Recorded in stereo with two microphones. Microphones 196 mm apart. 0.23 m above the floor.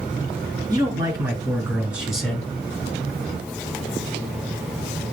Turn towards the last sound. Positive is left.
turn(degrees=10)  # may be behind; listen again after turning